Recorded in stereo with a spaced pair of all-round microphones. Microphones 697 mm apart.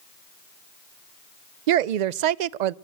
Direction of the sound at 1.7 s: 80° right.